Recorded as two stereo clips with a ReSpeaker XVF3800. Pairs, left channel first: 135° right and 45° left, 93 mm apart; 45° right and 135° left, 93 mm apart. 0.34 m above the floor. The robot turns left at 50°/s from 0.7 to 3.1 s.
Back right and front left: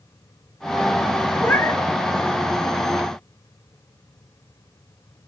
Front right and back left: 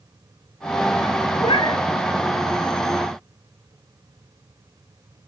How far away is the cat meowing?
About 2.5 m.